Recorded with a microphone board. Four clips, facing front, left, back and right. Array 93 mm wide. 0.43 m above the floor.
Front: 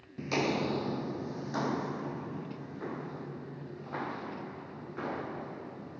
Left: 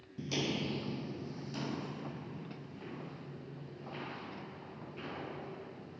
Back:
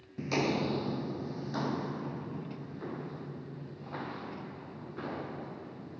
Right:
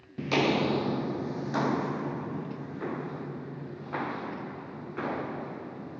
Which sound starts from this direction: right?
Footsteps, at 0.2 s.